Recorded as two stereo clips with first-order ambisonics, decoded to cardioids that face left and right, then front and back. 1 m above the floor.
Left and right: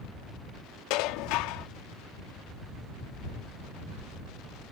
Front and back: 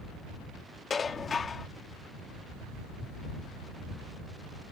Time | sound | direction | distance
0.9 | dishes clattering | 70° left | ?